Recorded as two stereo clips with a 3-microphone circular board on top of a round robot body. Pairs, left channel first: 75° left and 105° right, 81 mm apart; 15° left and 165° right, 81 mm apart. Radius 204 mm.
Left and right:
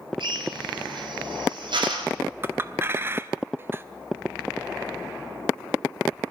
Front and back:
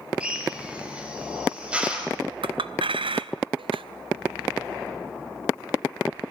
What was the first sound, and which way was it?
A drill, 90° right.